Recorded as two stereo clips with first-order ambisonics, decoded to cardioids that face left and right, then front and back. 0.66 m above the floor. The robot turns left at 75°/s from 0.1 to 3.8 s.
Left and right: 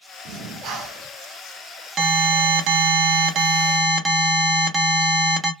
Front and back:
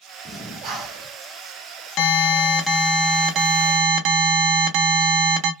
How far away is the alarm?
About 0.7 m.